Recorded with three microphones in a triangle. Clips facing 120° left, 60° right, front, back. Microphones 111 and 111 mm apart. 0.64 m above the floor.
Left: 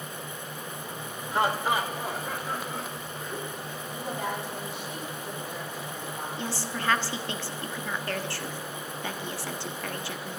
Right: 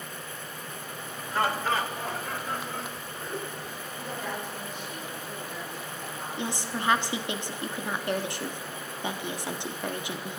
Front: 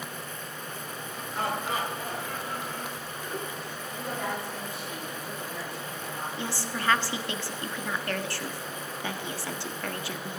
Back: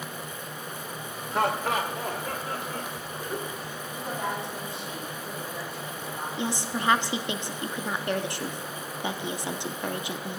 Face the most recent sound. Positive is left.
turn(degrees=-120)